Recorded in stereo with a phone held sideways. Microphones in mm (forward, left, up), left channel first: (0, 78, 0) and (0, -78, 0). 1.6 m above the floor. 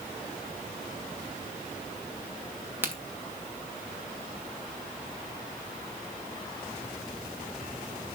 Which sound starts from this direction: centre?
A crack, at 2.8 s.